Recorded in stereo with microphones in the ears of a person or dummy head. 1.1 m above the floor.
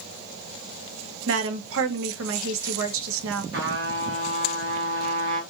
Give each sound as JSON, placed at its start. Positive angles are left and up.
{"t": 1.3, "sound": "a woman speaking", "side_deg": -60, "distance_m": 0.5}
{"t": 3.5, "sound": "a trumpet", "side_deg": -55, "distance_m": 0.9}